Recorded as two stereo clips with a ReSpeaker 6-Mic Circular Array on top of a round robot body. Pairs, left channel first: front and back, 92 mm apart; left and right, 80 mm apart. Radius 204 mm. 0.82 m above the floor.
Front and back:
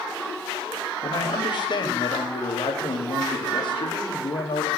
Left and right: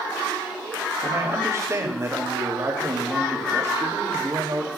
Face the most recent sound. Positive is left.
turn(degrees=-35)